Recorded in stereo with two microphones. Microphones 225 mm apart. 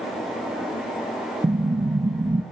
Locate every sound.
1.4 s an explosion: 30° right (ahead or behind), 0.9 m